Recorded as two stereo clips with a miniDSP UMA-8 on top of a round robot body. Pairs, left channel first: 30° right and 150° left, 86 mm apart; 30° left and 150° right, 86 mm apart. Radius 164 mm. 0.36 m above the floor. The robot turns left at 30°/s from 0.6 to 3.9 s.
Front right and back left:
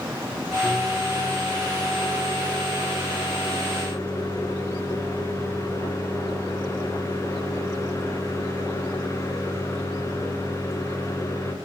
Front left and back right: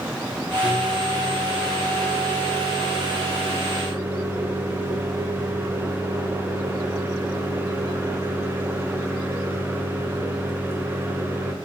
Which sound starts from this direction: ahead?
A microwave, at 0.6 s.